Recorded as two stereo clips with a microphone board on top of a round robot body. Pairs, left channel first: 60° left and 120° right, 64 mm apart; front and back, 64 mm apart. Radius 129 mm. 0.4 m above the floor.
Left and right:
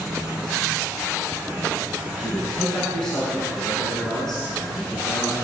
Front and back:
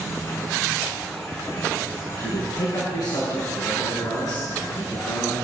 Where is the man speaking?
20° right, 6.5 m.